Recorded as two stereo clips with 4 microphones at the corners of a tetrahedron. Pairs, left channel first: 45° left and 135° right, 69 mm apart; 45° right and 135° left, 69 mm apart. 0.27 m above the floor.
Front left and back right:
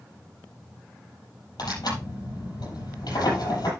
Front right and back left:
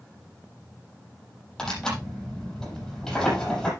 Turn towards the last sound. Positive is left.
turn(degrees=35)